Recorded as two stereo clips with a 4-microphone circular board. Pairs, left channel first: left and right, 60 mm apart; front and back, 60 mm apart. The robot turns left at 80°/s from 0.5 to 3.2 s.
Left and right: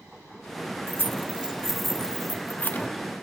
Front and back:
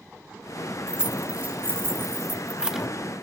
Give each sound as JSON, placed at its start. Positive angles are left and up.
{"t": 0.9, "sound": "keys jangling", "azimuth_deg": -105, "distance_m": 0.9}